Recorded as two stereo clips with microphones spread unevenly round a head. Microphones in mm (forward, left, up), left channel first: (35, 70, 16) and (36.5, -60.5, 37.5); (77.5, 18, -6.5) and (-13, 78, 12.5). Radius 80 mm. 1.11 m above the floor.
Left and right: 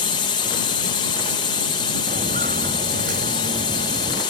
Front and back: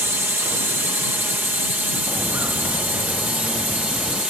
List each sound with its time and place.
0.0 s a drone: 75° left; by 4.3 s 65° left
2.1 s footsteps: 130° right